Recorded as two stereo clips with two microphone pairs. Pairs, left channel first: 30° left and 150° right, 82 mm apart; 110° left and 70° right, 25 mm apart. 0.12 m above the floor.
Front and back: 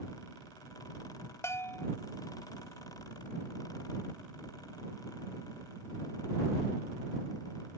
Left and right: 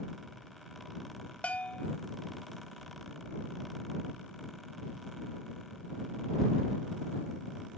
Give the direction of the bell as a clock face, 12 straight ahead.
9 o'clock.